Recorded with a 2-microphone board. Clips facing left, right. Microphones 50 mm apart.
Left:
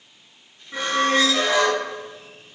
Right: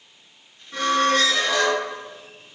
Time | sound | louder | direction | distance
0.7 | a squeak | right 1 dB | 20° left (ahead or behind) | 0.8 m